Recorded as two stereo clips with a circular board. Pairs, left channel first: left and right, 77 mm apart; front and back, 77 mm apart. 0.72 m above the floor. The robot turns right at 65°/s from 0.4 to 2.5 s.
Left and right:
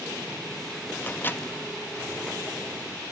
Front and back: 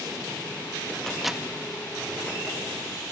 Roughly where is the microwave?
Left.